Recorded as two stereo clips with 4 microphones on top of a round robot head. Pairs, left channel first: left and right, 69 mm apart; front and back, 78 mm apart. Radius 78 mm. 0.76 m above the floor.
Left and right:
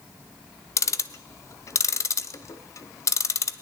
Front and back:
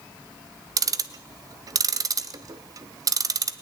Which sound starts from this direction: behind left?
Ticking, at 0.8 s.